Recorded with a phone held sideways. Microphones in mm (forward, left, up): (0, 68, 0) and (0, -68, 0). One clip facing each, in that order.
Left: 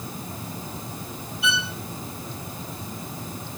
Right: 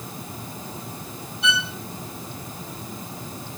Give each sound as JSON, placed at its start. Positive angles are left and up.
{"t": 1.4, "sound": "a violin", "side_deg": 5, "distance_m": 5.0}